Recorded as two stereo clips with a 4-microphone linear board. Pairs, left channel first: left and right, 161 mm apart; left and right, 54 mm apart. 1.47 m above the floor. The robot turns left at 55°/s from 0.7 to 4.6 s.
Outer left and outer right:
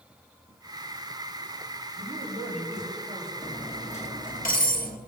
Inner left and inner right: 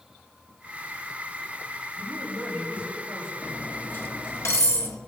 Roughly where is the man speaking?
Right.